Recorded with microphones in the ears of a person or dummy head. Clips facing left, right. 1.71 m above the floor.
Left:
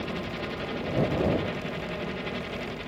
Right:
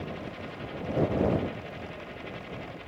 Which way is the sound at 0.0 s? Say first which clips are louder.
Left 5 dB; 55° left (ahead or behind).